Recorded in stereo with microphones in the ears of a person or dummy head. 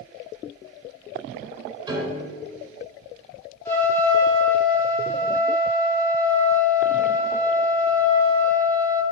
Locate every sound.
1.9 s a piano: 30° right (ahead or behind), 3.5 m
3.6 s a trumpet: 10° left (ahead or behind), 2.5 m